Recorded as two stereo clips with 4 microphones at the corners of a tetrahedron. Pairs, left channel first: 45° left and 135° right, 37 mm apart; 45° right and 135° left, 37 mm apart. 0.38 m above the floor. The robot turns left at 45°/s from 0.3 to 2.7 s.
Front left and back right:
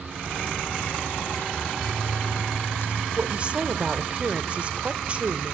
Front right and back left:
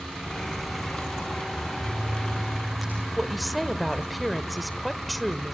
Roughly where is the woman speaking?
Behind right.